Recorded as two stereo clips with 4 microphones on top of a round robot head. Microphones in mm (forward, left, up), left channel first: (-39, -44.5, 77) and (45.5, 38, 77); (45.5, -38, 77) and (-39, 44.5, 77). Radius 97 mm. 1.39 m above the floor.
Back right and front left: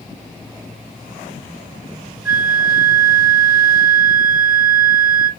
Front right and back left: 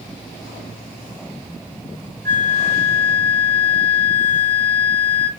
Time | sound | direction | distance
2.2 | a flute | 125° left | 0.7 m